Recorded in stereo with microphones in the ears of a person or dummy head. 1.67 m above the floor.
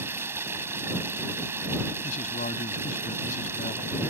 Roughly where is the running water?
Centre.